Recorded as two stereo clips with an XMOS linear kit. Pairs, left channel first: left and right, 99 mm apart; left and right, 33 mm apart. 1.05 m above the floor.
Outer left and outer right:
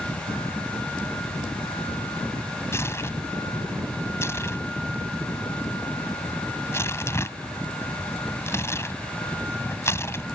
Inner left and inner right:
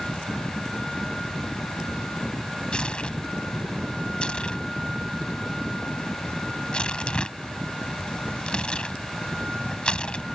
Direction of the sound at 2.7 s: 25° left (ahead or behind).